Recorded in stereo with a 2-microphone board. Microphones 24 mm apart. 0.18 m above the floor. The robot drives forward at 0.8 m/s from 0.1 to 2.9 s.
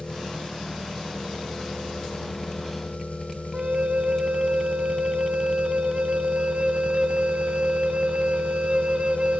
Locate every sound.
0.0 s an engine running: 45° left (ahead or behind), 2.5 m; by 9.4 s 75° left (ahead or behind), 1.9 m
3.5 s a flute: 50° right (ahead or behind), 0.5 m